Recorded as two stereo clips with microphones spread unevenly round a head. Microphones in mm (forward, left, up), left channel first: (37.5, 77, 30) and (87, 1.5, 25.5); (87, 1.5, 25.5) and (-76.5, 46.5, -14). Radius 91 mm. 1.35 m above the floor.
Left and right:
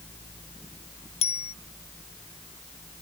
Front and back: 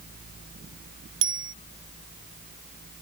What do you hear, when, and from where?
1.2 s a bicycle bell: 155° left